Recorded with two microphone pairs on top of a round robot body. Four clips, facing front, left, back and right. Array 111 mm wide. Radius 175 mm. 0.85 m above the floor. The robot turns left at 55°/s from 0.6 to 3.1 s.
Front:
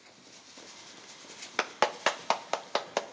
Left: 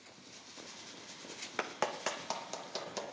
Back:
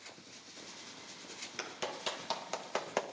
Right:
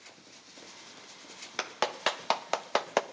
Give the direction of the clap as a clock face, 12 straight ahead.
12 o'clock.